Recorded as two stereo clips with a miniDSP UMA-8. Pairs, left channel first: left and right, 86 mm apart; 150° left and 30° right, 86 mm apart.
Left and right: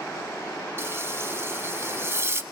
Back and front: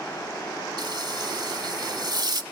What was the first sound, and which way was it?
Frying, 35° right.